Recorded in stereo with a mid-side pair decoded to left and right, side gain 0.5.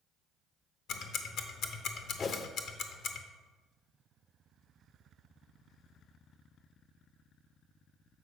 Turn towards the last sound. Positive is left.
turn(degrees=45)